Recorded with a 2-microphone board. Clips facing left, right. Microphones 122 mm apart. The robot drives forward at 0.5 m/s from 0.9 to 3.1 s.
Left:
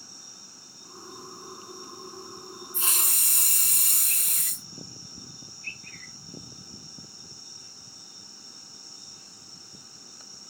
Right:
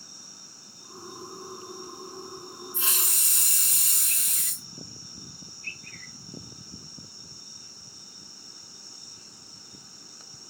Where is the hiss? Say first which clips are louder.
Left 2 dB; 40° left (ahead or behind), 0.6 m; by 4.7 s 55° left (ahead or behind), 0.5 m.